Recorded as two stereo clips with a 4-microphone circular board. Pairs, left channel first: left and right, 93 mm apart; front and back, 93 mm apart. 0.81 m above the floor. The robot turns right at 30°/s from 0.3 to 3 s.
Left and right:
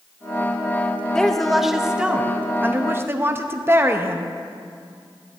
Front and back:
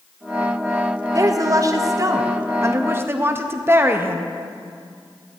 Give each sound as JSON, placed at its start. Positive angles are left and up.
{"t": 1.1, "sound": "a woman speaking", "azimuth_deg": 170, "distance_m": 0.6}